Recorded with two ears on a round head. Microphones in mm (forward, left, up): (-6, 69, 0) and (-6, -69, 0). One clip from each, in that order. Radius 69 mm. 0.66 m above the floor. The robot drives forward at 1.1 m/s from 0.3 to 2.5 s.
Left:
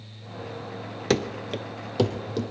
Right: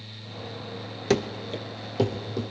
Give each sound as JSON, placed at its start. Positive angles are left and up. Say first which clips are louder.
{"t": 1.1, "sound": "running footsteps", "louder": "even", "side_deg": 10, "distance_m": 0.6}